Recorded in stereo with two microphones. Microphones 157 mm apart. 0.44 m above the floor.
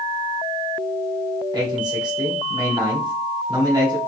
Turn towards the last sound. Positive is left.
turn(degrees=-25)  # may be behind; listen again after turning